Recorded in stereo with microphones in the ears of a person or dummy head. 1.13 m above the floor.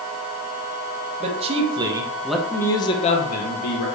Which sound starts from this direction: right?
A man speaking, at 1.2 s.